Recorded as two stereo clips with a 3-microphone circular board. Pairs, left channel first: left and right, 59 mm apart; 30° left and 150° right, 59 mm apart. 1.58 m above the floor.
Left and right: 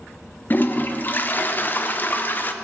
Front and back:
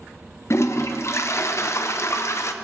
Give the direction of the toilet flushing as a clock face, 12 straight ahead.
11 o'clock.